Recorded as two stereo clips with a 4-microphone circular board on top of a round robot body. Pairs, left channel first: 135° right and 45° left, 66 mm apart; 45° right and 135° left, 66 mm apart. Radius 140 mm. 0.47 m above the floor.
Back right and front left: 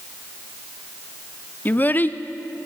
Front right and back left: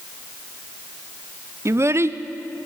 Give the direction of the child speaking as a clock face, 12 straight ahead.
6 o'clock.